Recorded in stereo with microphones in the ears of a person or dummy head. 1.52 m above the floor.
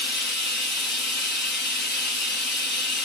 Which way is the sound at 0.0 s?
50° left (ahead or behind).